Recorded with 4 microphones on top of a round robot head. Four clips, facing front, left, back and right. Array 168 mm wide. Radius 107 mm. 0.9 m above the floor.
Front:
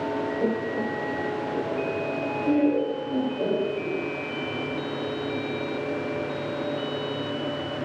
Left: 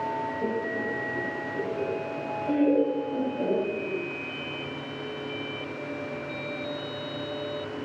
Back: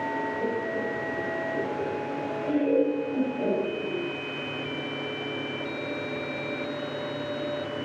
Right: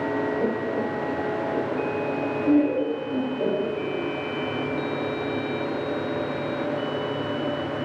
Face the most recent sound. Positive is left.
turn(degrees=-60)